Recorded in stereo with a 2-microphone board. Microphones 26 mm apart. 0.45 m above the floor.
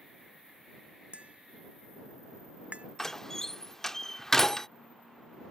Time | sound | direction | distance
1.1 | tapping | 50° right (ahead or behind) | ?
3.0 | a door slam | 15° left (ahead or behind) | ?